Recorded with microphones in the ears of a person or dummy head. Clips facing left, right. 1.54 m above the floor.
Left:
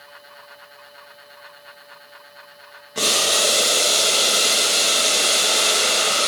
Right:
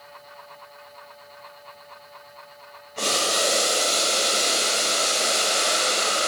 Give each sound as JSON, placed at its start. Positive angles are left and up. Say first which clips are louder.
{"t": 3.0, "sound": "boiling", "louder": "left 2 dB", "side_deg": 85, "distance_m": 1.8}